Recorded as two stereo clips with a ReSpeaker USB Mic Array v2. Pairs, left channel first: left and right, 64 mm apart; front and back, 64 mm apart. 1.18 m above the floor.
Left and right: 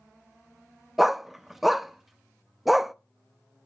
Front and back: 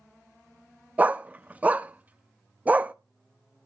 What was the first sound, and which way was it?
A dog barking, 170° right.